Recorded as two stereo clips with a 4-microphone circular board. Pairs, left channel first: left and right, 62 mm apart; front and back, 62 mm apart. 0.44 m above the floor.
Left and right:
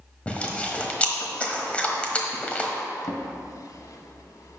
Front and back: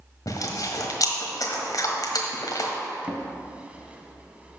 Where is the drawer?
110° left, 0.8 m.